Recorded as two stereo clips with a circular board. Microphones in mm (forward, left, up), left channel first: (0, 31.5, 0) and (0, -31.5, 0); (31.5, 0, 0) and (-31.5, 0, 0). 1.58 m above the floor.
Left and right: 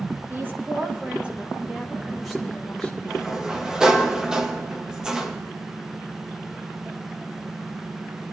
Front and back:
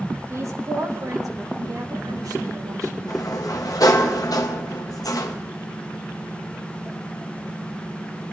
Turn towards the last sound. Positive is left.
turn(degrees=-10)